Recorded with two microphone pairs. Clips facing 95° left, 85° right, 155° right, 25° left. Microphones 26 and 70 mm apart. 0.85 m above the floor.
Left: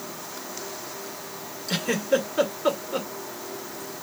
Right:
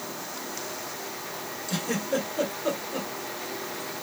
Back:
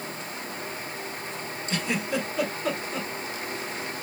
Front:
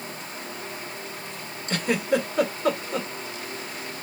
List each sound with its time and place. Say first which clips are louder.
1.7 s a giggle: left 5 dB, front 5 dB; 65° left, 1.3 m